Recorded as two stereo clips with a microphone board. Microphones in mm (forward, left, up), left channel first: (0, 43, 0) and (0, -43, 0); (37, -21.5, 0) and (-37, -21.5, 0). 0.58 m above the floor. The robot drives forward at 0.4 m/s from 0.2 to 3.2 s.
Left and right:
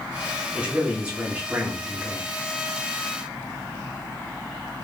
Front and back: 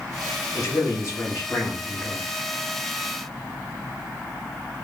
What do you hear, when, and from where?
0.6 s a man speaking: 15° right, 1.2 m; by 2.2 s 50° right, 0.8 m